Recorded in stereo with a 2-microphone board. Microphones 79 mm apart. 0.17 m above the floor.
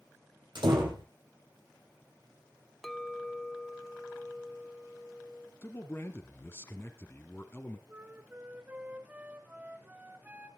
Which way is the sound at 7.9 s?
20° right (ahead or behind).